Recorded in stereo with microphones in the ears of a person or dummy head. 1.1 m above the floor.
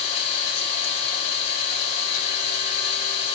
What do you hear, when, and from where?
0.0 s an engine running: 40° left (ahead or behind), 8.5 m